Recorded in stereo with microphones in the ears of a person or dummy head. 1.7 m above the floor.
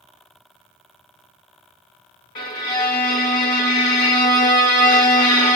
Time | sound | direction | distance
2.4 | a violin | 20° left (ahead or behind) | 1.3 m